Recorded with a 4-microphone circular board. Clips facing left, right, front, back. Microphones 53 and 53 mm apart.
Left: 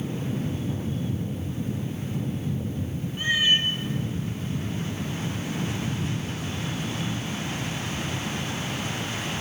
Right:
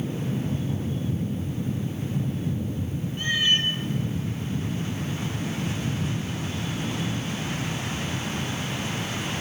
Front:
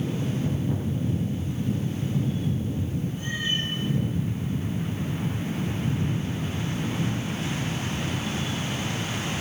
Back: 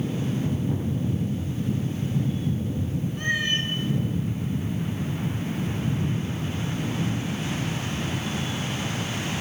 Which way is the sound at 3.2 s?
165° left.